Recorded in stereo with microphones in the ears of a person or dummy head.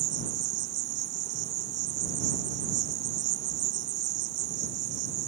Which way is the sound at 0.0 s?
55° right (ahead or behind).